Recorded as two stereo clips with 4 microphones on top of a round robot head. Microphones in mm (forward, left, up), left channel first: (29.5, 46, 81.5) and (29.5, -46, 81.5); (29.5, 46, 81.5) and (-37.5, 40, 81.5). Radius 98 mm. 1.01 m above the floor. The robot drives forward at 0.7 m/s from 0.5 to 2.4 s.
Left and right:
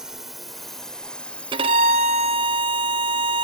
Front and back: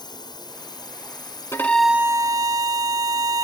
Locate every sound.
0.0 s a drone: 5° right; by 3.5 s 30° left
1.5 s a violin: 60° right; by 3.5 s 130° right